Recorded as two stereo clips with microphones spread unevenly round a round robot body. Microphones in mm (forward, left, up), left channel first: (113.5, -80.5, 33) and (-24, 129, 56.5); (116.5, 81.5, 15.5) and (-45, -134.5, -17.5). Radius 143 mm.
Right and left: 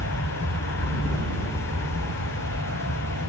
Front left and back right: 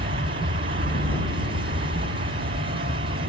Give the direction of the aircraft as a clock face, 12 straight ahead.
3 o'clock.